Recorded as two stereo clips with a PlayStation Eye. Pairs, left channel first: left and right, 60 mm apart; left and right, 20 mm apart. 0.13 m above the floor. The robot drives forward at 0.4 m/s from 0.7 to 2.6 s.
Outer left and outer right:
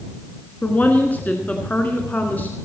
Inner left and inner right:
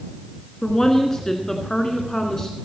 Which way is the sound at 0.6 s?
25° left (ahead or behind).